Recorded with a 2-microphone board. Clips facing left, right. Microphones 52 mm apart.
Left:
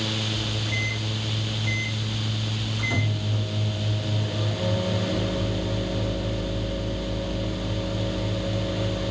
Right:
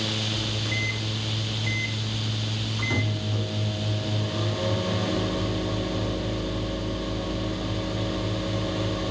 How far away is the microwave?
About 7.5 m.